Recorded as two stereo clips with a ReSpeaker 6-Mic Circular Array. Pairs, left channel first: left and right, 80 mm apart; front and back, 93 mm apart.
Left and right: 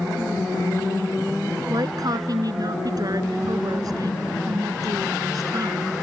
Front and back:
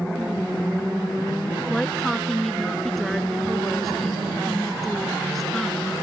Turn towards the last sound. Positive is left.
turn(degrees=-90)